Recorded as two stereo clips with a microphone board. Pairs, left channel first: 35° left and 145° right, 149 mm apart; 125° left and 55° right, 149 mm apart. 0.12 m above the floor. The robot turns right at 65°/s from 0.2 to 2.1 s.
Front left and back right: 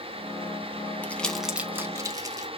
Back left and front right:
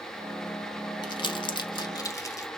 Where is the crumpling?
100° left, 0.6 m; by 2.5 s 170° left, 0.6 m.